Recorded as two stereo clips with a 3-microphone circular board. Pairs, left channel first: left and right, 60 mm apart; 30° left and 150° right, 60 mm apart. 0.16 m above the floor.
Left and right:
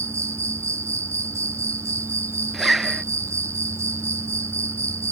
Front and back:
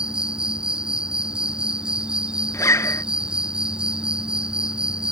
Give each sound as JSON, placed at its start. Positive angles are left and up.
{"t": 0.0, "sound": "an insect", "azimuth_deg": -80}
{"t": 2.5, "sound": "a zipper", "azimuth_deg": -5}